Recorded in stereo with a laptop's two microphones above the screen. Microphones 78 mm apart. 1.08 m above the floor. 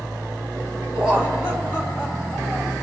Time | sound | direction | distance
0.9 | laughter | 15° right (ahead or behind) | 5.5 m